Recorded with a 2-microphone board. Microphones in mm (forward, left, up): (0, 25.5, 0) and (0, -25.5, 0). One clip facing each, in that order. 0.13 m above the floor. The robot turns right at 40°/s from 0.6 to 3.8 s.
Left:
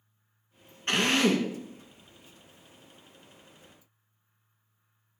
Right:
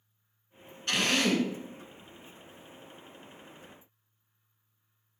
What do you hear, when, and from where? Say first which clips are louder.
0.9 s a drill: left 3 dB; 35° left (ahead or behind), 0.7 m; by 1.5 s 25° left (ahead or behind), 0.7 m